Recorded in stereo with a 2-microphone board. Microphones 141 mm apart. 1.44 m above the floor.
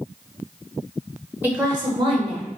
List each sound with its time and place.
1.4 s a woman speaking: 10° right (ahead or behind), 0.5 m; by 2.5 s 45° right (ahead or behind), 1.1 m